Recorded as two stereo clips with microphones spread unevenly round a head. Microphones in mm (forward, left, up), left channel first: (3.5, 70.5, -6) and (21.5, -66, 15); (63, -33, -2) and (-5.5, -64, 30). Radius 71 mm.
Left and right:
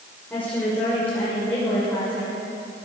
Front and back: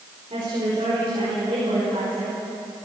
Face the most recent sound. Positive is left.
turn(degrees=180)